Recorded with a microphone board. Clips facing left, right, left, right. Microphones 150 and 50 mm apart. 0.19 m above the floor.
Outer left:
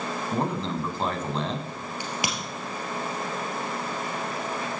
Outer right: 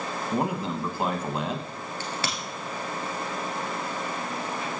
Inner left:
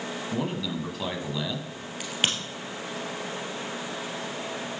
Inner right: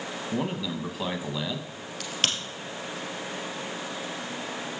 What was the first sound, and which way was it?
A man speaking, 10° right (ahead or behind).